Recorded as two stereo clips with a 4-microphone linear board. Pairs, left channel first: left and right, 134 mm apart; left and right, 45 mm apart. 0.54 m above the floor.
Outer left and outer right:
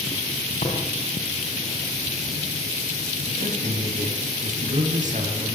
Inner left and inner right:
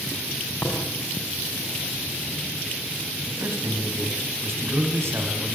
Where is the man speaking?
75° right (ahead or behind), 4.5 m.